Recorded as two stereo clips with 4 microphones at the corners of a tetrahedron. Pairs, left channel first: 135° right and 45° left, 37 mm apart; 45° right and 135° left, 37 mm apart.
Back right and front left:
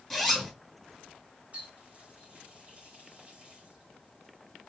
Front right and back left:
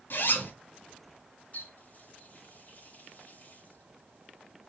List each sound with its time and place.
0.1 s a zipper: 40° right, 3.5 m
1.5 s a running tap: 5° right, 5 m